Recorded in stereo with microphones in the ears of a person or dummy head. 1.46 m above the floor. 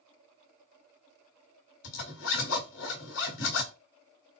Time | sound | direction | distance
1.8 | a zipper | 60° left (ahead or behind) | 2.0 m